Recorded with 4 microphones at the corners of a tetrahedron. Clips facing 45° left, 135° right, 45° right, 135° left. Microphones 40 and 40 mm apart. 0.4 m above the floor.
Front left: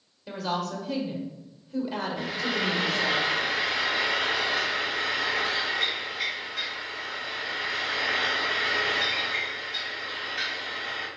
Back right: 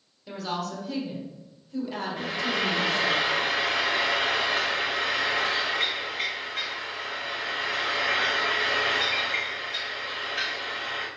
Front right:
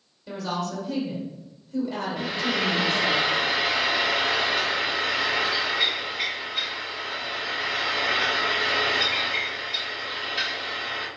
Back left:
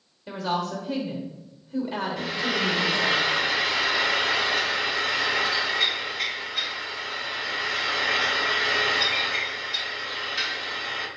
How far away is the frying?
About 0.9 m.